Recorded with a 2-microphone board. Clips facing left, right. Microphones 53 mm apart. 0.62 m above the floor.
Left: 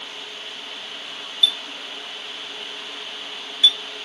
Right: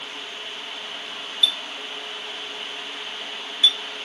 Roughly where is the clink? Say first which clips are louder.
Left 2 dB; right.